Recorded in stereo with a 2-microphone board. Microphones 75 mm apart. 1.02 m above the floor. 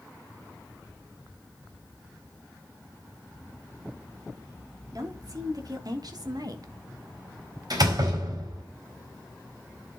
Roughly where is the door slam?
Right.